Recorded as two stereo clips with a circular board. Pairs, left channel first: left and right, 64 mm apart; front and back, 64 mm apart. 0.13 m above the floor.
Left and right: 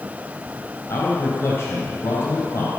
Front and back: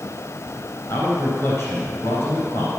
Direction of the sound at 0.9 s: 45° left.